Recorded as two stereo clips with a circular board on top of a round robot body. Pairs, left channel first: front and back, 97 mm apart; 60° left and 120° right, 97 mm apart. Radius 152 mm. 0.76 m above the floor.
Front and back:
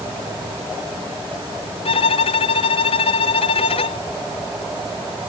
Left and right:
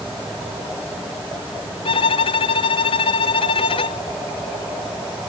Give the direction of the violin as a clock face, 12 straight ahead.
11 o'clock.